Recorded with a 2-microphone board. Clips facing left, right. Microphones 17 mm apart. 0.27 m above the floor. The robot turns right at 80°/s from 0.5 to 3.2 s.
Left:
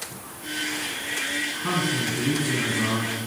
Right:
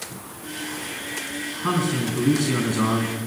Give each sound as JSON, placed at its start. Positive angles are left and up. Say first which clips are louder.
{"t": 1.6, "sound": "a man speaking", "louder": "right 4 dB", "azimuth_deg": -165, "distance_m": 3.5}